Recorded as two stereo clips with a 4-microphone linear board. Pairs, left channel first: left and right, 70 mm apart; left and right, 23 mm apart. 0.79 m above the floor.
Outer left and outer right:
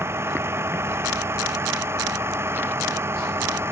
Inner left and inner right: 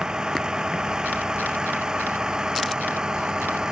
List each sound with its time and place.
0.0 s a vehicle: 35° right (ahead or behind)